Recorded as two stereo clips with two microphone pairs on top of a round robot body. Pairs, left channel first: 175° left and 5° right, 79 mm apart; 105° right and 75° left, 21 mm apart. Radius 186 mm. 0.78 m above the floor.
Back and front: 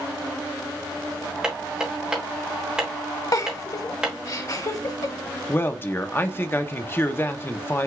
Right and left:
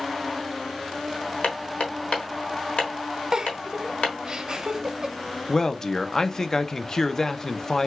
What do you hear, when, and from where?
1.4 s hammering: 85° right, 1.3 m
3.3 s a giggle: 130° left, 0.7 m
5.5 s a man speaking: 130° right, 0.8 m